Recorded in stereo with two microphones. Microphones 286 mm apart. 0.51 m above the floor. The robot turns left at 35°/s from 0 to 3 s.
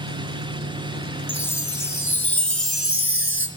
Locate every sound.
0.0 s an engine running: 85° right, 4 m; by 3.6 s 170° left, 4 m
1.3 s a chime: 105° left, 2.5 m; by 3.5 s 45° left, 2.5 m